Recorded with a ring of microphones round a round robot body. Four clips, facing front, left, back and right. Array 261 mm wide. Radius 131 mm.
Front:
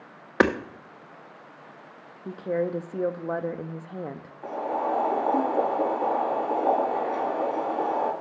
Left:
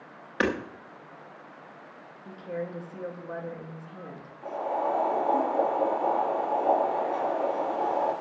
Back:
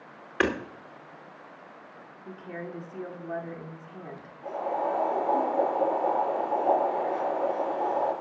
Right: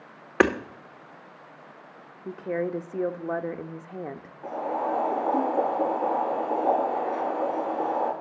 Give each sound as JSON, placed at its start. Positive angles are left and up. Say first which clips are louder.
{"t": 0.4, "sound": "hammering", "louder": "right 6 dB, front 5 dB", "azimuth_deg": -40, "distance_m": 0.9}
{"t": 2.2, "sound": "a woman speaking", "louder": "right 6 dB, front 12 dB", "azimuth_deg": -40, "distance_m": 0.7}
{"t": 4.4, "sound": "boiling", "louder": "even, front 1 dB", "azimuth_deg": 5, "distance_m": 5.5}